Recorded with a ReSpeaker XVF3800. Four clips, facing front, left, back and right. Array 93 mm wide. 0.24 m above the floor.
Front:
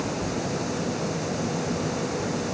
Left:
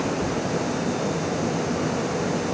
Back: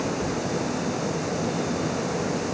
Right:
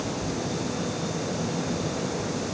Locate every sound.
Only background noise.